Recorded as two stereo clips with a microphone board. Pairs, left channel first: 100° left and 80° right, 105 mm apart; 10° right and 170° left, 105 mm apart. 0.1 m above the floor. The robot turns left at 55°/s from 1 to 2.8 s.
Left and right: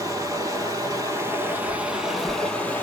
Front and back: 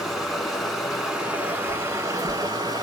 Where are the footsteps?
105° right, 1.0 m; by 2.8 s 125° left, 0.6 m.